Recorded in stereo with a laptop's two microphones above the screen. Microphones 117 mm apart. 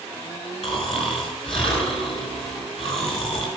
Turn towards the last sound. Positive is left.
turn(degrees=55)  # may be behind; listen again after turning